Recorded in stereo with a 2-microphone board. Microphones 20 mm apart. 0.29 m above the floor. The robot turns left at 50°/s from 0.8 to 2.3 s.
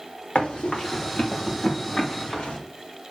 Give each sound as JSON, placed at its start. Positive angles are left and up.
{"t": 0.3, "sound": "running footsteps", "side_deg": 85, "distance_m": 3.5}